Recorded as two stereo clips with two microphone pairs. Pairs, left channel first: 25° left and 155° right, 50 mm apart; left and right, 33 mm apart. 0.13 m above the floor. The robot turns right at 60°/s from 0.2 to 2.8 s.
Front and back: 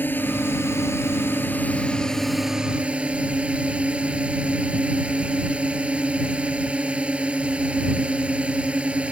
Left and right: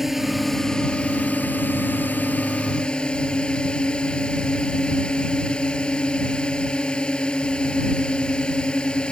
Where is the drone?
10° right; by 9.1 s 145° left.